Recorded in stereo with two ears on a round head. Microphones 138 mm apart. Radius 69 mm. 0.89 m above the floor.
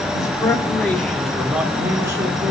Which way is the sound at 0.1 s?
25° left (ahead or behind).